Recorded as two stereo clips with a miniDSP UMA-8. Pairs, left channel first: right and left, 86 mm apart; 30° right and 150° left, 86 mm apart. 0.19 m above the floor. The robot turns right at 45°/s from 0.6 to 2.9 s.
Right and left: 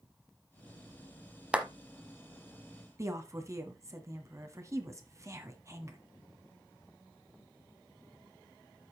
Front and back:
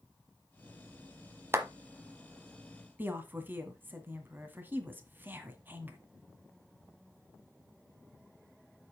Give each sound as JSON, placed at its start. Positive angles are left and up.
{"t": 1.5, "sound": "a clap", "azimuth_deg": 150, "distance_m": 1.1}
{"t": 3.0, "sound": "a woman speaking", "azimuth_deg": 100, "distance_m": 1.5}